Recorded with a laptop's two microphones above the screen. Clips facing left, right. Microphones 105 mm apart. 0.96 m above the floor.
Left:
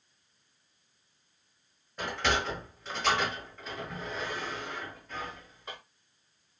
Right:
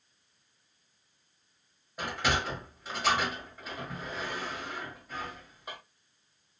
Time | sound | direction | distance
2.0 | a sliding door | 5° right (ahead or behind) | 1.1 m